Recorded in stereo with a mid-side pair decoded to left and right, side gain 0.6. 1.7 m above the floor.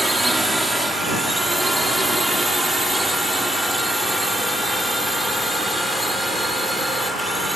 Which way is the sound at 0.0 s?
10° right.